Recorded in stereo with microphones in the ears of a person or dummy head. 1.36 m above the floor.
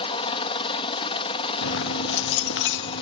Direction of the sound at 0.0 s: 30° left (ahead or behind).